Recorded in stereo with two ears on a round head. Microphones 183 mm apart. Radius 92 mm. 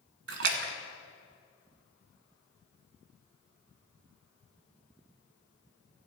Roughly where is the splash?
Right.